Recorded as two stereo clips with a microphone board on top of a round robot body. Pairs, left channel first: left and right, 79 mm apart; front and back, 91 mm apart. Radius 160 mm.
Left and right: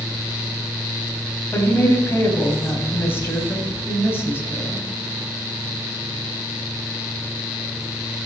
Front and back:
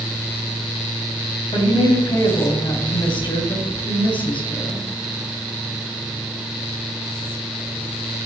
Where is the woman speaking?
30° left, 3.5 m.